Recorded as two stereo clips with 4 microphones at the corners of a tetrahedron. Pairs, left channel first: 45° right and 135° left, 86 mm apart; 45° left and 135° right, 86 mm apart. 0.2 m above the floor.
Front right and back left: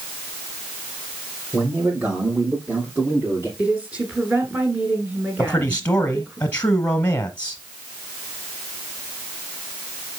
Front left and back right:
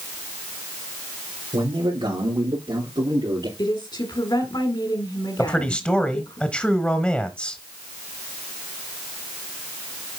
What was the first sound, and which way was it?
A man speaking, 150° right.